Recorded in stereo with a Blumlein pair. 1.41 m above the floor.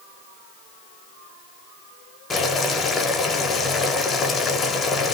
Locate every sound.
2.3 s boiling: 20° left, 0.7 m